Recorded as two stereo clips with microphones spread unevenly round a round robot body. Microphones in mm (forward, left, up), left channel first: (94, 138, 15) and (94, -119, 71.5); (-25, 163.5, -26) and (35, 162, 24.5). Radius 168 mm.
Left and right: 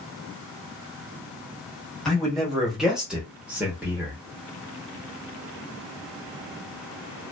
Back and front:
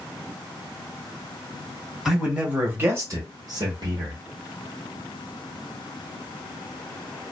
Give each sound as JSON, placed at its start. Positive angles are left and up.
{"t": 2.0, "sound": "a man speaking", "azimuth_deg": 160, "distance_m": 1.1}